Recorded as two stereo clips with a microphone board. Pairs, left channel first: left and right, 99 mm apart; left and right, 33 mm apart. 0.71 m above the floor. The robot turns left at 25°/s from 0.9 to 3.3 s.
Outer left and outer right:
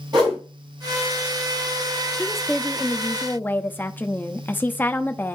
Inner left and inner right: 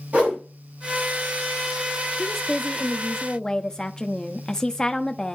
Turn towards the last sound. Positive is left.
turn(degrees=20)  # may be behind; listen again after turning